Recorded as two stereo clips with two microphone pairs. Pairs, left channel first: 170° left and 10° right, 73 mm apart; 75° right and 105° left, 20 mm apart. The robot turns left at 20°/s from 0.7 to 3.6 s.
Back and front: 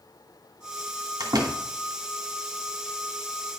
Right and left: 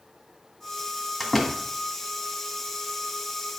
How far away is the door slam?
About 1.6 m.